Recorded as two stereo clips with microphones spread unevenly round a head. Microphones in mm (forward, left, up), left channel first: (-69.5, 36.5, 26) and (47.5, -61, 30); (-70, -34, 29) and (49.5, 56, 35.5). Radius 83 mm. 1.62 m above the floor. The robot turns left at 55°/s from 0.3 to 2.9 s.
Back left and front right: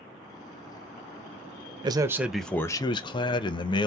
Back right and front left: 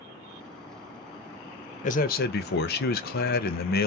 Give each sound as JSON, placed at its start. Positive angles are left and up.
{"t": 1.8, "sound": "a man speaking", "azimuth_deg": -100, "distance_m": 0.5}